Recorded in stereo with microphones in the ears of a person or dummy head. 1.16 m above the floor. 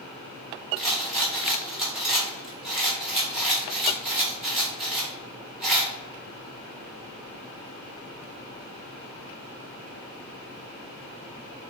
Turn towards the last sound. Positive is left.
turn(degrees=-5)  # may be behind; listen again after turning